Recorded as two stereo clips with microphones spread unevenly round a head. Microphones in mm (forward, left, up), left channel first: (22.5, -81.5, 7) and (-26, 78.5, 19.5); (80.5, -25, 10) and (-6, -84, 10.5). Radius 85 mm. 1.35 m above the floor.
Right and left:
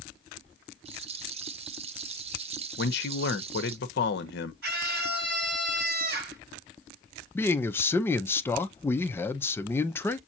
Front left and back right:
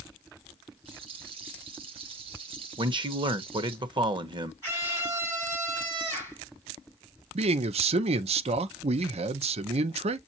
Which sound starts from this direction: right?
A man speaking, at 2.8 s.